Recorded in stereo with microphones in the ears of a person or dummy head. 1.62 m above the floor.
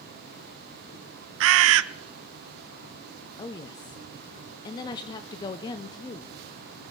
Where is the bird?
80° right, 0.6 m.